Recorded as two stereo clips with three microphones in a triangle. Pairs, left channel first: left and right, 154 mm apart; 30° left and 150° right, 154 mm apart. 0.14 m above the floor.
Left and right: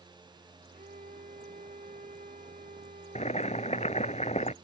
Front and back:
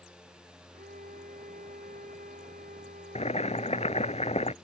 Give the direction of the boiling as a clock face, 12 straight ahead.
10 o'clock.